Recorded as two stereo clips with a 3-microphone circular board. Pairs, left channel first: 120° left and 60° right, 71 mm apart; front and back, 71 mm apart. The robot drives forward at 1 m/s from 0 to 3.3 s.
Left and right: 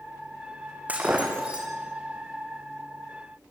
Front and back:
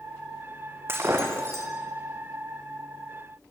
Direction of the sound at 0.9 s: 125° right.